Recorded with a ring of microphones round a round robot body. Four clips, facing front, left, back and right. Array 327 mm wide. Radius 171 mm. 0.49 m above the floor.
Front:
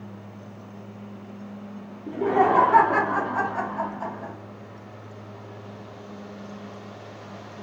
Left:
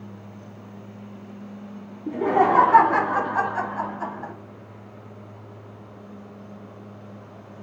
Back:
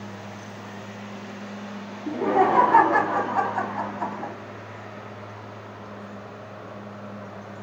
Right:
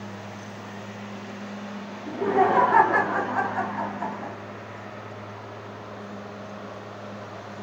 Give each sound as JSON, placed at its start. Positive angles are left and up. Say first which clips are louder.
{"t": 2.1, "sound": "laughter", "louder": "left 2 dB, even", "azimuth_deg": 135, "distance_m": 2.5}